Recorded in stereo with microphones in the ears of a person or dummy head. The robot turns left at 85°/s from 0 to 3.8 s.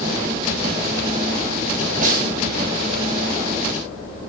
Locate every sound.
2.0 s a snare drum: 45° right (ahead or behind), 5.5 m; by 2.3 s 70° right (ahead or behind), 5.5 m